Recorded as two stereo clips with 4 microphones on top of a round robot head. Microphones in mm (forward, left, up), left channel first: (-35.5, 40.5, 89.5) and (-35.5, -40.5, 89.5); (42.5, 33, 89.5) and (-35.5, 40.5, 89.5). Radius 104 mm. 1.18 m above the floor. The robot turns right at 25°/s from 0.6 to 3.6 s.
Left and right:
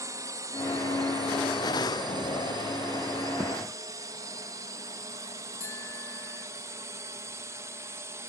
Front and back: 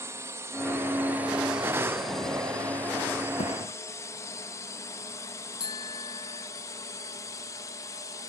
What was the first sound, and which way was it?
A drone, 135° right.